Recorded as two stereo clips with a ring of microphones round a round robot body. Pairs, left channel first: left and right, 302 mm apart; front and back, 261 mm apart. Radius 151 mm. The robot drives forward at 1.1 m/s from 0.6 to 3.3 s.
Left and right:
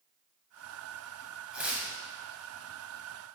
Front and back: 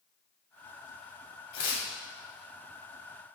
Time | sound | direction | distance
1.5 | tearing paper | 5° right | 1.6 m